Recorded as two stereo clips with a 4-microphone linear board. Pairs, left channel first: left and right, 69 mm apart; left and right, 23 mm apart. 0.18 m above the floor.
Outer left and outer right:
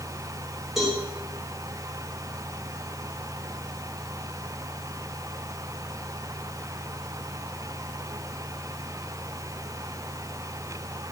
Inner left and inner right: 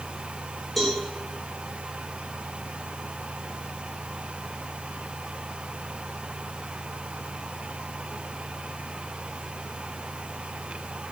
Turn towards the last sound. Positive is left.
turn(degrees=-5)  # may be behind; listen again after turning